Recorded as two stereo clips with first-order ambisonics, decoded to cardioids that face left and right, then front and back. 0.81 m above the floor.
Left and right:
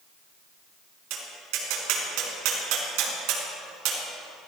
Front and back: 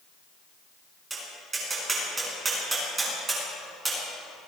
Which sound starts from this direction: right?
Tapping, at 1.1 s.